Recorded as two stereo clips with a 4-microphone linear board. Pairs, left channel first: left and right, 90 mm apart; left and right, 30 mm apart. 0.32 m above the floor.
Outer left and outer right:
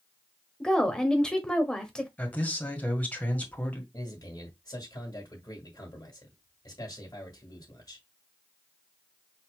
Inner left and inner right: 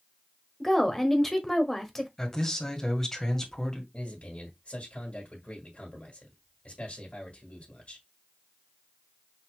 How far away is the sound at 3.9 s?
About 1.8 m.